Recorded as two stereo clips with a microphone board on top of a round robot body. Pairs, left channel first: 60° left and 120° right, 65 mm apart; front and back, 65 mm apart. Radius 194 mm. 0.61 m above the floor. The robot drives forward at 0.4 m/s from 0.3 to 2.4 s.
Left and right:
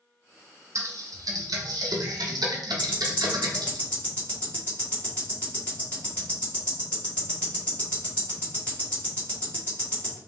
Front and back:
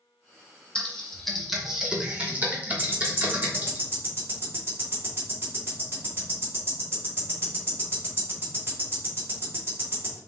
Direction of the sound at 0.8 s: 75° right.